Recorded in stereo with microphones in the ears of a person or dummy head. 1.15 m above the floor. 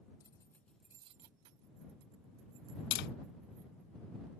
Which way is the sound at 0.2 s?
30° left (ahead or behind).